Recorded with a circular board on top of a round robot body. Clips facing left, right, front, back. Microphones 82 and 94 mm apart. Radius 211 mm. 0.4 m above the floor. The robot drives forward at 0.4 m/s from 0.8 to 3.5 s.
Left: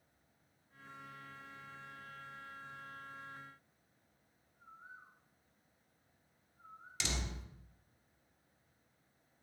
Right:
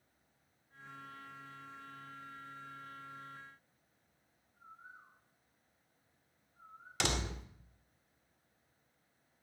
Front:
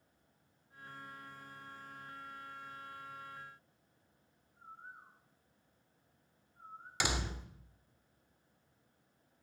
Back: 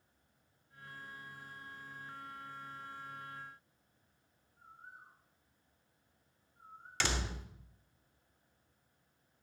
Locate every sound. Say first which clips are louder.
4.6 s a bird: even, front 3 dB; 55° right, 9 m
7.0 s a door slam: right 6 dB, even; 75° right, 1.7 m